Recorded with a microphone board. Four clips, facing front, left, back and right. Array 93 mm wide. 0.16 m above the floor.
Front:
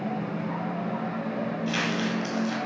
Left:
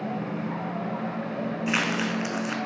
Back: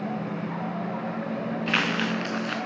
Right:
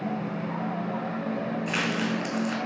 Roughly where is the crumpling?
Behind left.